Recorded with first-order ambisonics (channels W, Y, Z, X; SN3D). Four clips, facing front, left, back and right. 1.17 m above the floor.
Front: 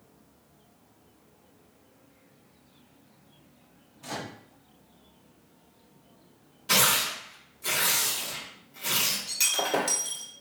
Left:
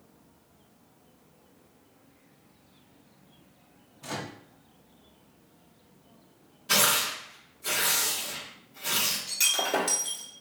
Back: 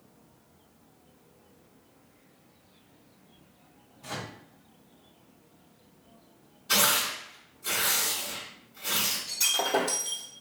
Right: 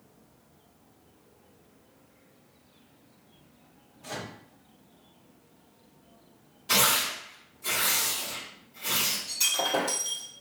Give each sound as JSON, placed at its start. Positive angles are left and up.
{"t": 4.0, "sound": "a microwave", "azimuth_deg": 55, "distance_m": 1.1}
{"t": 6.7, "sound": "tearing paper", "azimuth_deg": -5, "distance_m": 1.6}
{"t": 9.3, "sound": "breaking glass", "azimuth_deg": 40, "distance_m": 1.6}